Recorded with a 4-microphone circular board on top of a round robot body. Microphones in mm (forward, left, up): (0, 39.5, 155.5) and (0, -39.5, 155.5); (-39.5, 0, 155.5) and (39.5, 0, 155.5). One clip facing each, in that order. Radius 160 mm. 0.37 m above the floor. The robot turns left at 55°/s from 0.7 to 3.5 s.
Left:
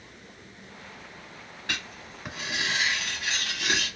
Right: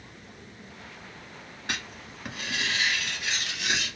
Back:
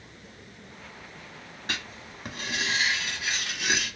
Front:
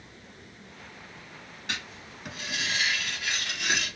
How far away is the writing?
About 1.7 m.